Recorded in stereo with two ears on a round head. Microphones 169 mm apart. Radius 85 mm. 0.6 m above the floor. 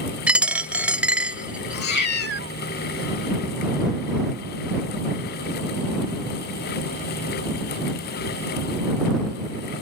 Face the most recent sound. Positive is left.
turn(degrees=60)  # may be behind; listen again after turning